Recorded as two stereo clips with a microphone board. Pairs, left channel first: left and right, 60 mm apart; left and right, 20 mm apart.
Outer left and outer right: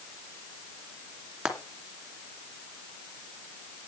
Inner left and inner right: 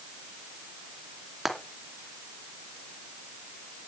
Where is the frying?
10° right (ahead or behind), 2.5 m.